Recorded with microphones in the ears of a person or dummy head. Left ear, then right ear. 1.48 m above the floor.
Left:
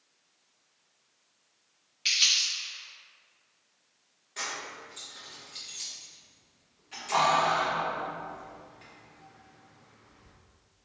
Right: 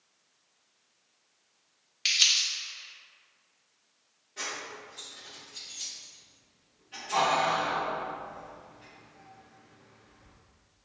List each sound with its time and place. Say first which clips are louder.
2.0 s crumpling: even; 35° right (ahead or behind), 1.4 m
4.4 s keys jangling: left 1 dB; 20° left (ahead or behind), 0.6 m